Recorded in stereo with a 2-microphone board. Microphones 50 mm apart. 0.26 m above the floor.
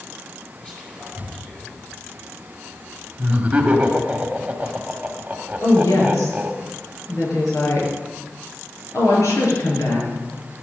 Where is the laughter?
20° right (ahead or behind), 1.7 m.